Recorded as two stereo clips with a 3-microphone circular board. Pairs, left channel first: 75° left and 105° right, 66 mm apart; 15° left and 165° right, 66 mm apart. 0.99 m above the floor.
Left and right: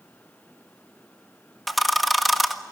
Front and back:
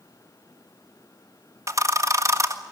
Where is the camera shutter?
165° left, 1.5 m.